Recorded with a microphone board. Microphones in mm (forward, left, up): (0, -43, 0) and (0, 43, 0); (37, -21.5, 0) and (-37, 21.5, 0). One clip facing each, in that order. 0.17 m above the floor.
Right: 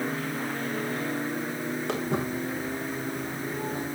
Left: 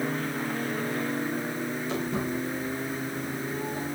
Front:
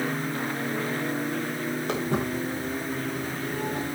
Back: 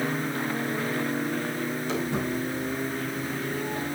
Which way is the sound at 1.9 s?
65° right.